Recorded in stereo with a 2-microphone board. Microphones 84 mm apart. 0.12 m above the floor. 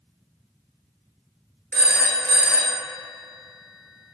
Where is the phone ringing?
20° left (ahead or behind), 1.2 m.